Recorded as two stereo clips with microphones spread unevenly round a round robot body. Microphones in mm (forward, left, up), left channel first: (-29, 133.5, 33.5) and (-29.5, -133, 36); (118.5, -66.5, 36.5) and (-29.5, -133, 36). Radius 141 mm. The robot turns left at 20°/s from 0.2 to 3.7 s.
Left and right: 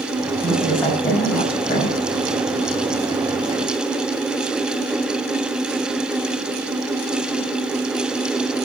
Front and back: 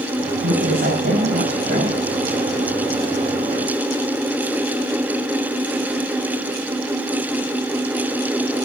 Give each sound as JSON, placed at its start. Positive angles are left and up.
{"t": 0.4, "sound": "a woman speaking", "azimuth_deg": 180, "distance_m": 5.5}